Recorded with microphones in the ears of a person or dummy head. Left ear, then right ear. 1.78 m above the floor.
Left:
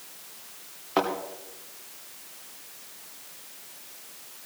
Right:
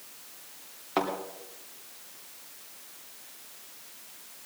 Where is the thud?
Centre (ahead or behind), 3 m.